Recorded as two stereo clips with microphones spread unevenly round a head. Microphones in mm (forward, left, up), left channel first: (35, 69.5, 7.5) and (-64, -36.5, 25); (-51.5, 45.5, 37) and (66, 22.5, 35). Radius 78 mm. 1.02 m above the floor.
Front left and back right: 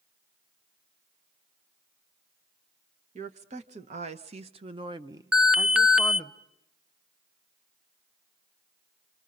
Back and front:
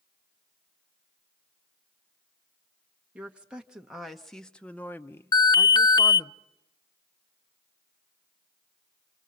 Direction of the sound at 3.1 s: 90° right.